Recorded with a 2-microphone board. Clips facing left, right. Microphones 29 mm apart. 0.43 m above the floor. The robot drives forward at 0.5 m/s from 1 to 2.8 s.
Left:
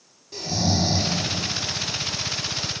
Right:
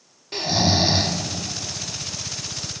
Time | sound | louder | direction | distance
0.3 | snoring | right 4 dB | 55° right (ahead or behind) | 0.6 m